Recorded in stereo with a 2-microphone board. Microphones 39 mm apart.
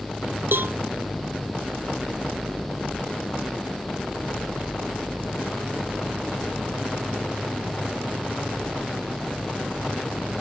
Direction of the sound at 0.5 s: 65° right (ahead or behind).